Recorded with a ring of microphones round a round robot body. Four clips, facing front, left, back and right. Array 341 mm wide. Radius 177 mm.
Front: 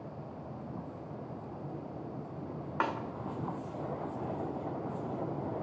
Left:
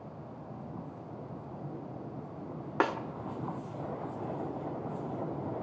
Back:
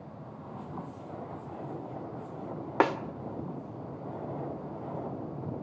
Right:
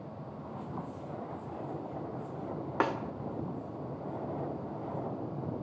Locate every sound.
2.8 s a snare drum: 175° left, 1.9 m